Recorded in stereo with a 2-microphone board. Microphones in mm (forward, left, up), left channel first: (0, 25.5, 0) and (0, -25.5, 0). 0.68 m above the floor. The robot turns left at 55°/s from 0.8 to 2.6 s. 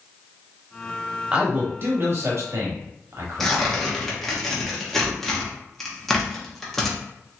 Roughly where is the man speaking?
Ahead.